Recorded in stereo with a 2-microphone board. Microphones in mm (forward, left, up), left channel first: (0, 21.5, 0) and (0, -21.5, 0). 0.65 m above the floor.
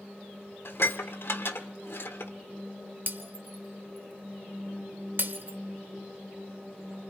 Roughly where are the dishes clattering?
Left.